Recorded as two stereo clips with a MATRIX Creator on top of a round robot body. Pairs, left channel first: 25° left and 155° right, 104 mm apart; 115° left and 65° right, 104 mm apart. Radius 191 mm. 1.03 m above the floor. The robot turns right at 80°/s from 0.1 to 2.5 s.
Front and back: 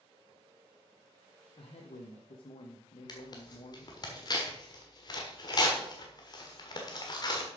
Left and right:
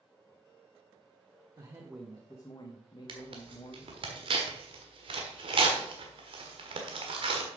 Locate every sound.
1.6 s a man speaking: 20° right, 1.2 m; by 4.1 s 60° left, 1.2 m
3.1 s tearing paper: 30° right, 1.4 m